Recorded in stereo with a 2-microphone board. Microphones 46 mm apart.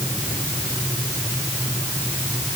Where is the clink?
I don't hear a clink.